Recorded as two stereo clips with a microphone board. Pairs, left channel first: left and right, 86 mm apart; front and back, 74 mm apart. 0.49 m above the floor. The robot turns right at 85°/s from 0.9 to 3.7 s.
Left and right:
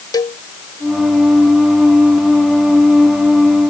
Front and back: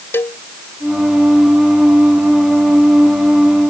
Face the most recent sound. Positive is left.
turn(degrees=-65)